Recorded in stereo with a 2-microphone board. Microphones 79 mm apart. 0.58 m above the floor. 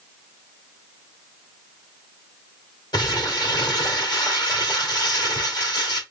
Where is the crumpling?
55° left (ahead or behind), 2 m.